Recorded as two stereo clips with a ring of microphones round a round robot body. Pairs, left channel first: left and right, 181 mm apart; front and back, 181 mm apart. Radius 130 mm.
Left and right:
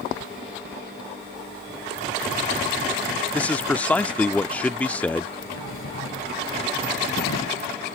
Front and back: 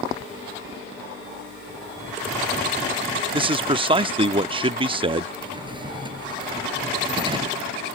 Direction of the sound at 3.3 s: 165° left.